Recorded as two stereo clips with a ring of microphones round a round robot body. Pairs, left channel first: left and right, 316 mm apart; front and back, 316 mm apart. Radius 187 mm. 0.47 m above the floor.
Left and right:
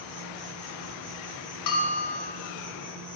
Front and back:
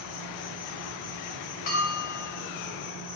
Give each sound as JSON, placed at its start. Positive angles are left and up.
{"t": 0.0, "sound": "an insect", "azimuth_deg": 30, "distance_m": 2.0}
{"t": 1.7, "sound": "a bell", "azimuth_deg": 70, "distance_m": 0.8}